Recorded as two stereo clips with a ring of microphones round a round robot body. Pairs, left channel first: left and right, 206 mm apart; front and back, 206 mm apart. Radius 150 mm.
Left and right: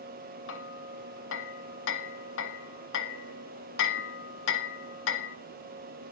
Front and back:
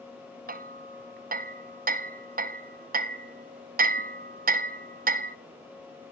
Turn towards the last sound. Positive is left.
turn(degrees=135)